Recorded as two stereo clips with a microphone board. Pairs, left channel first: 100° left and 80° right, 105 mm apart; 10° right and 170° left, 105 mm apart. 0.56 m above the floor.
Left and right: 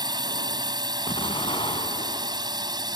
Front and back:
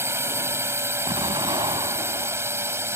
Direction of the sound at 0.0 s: 125° right.